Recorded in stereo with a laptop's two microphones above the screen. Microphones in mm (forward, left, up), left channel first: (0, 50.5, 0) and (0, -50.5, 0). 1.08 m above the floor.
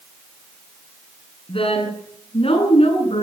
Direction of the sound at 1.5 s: 65° left (ahead or behind).